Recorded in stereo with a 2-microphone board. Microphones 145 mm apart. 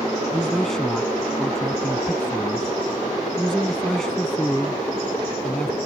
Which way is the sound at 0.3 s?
5° left (ahead or behind).